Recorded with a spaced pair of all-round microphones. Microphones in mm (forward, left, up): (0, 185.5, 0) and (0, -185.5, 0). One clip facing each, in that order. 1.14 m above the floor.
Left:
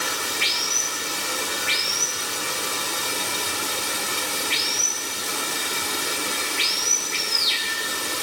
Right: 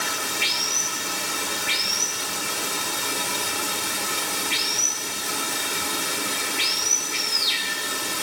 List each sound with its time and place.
0.0 s running water: 55° right (ahead or behind), 1.8 m